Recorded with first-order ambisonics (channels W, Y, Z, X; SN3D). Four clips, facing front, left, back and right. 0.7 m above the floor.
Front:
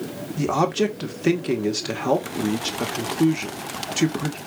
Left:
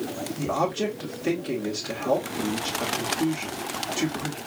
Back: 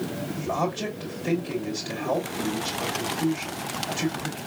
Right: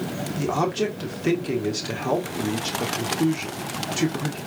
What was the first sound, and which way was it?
A man speaking, 20° right.